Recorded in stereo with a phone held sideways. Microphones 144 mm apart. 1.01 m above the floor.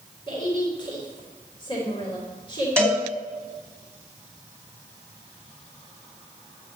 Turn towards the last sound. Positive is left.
turn(degrees=5)  # may be behind; listen again after turning